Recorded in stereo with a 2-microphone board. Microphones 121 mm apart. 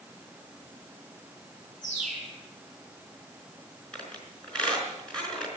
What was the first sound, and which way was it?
A bird, 5° right (ahead or behind).